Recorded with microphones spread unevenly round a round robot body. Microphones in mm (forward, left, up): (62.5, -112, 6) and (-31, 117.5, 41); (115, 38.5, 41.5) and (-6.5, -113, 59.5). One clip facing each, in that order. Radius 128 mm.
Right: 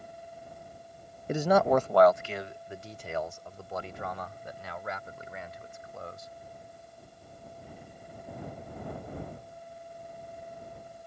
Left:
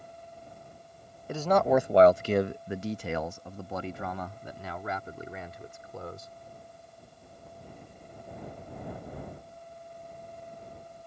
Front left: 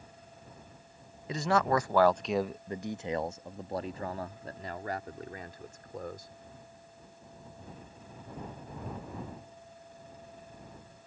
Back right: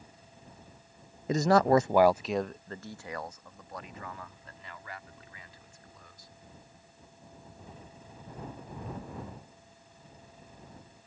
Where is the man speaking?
110° right; by 6.3 s 105° left.